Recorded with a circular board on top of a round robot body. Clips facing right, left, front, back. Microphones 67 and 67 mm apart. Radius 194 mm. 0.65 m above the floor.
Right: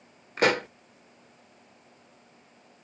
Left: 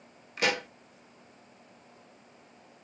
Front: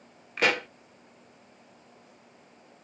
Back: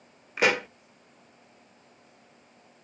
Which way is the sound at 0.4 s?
100° right.